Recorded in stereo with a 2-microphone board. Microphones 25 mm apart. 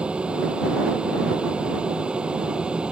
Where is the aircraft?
50° right (ahead or behind); by 2.9 s 45° right (ahead or behind).